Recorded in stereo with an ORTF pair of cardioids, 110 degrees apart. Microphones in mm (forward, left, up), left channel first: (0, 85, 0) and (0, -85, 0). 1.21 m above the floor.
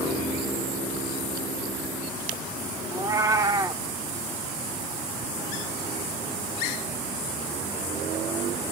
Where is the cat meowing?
20° right, 1.7 m.